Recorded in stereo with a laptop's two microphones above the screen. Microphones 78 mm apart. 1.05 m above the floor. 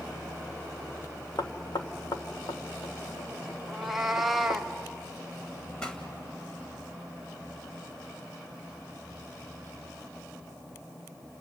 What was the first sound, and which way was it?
Knocking, 70° left (ahead or behind).